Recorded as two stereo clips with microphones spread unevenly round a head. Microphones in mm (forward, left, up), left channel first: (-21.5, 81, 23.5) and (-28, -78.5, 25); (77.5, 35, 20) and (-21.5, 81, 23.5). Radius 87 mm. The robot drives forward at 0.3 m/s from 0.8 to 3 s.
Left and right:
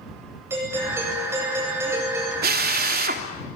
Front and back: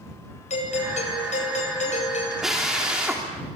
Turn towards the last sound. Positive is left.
turn(degrees=-120)